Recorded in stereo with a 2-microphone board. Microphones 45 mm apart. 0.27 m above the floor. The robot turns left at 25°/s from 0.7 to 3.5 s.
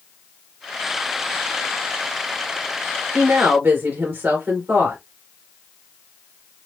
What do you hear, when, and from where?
3.1 s a woman speaking: 60° right (ahead or behind), 3.5 m; by 5.0 s 50° right (ahead or behind), 3.5 m